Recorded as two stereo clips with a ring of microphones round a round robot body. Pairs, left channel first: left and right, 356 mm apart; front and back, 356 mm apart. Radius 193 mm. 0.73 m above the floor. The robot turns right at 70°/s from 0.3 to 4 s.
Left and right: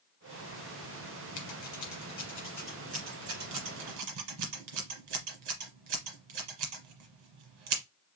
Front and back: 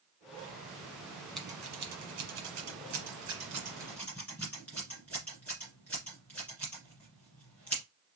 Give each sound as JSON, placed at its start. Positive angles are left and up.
{"t": 1.4, "sound": "scissors", "azimuth_deg": 90, "distance_m": 1.4}